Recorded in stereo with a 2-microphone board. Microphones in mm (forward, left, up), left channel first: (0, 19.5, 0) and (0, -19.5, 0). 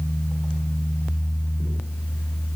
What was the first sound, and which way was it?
Only background noise.